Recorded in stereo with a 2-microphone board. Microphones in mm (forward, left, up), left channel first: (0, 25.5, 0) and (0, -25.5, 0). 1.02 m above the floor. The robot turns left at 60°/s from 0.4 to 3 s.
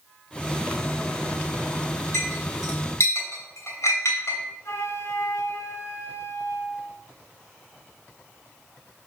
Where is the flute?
80° left, 1.1 m.